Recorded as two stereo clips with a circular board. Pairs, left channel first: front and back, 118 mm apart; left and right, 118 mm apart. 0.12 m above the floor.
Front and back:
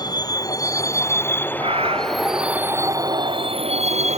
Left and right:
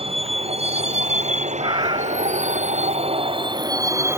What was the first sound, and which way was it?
A vehicle, 55° right.